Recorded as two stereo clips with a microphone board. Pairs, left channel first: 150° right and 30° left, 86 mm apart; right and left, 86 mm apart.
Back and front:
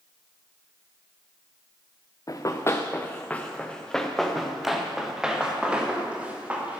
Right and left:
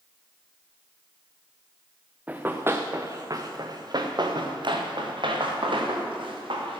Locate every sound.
2.3 s running footsteps: 165° left, 1.2 m; by 6.8 s 105° left, 3 m